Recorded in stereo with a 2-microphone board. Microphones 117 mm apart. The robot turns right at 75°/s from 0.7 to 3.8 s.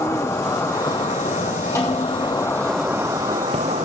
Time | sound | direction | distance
0.0 | an insect | 25° left | 1.5 m
1.8 | a snare drum | 20° left | 7.5 m